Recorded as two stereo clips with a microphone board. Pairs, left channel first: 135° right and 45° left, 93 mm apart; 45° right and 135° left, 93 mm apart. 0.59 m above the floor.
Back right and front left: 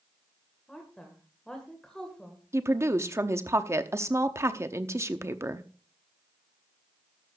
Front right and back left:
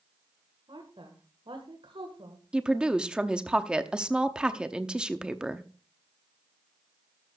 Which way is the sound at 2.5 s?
65° left.